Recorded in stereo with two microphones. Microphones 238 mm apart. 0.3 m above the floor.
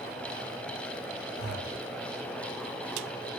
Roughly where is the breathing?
Right.